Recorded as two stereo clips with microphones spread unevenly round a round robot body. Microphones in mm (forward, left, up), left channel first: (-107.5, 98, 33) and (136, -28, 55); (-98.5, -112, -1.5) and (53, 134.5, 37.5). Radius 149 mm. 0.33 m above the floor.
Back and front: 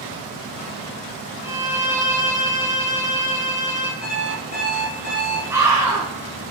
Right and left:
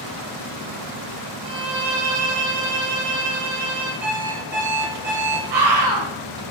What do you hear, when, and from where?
1.4 s a violin: 55° left, 3.5 m
4.0 s an alarm clock: 115° left, 4.5 m
5.5 s a scream: 55° left, 5 m